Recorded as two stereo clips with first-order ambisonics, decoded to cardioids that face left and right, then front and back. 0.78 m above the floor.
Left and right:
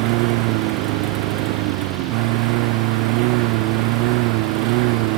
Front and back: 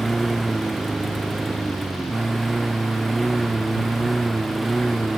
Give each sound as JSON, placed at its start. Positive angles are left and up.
{"t": 0.0, "sound": "a lawn mower", "azimuth_deg": -100}